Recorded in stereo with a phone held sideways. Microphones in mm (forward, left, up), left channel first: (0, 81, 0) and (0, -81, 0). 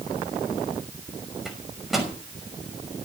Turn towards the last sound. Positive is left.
turn(degrees=0)  # may be behind; listen again after turning